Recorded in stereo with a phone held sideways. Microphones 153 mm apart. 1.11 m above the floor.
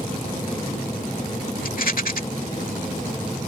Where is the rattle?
70° left (ahead or behind).